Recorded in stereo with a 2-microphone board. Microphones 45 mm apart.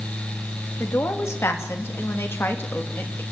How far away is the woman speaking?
About 3 m.